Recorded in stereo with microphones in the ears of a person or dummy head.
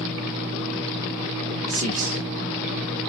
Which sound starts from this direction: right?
A man speaking, at 1.7 s.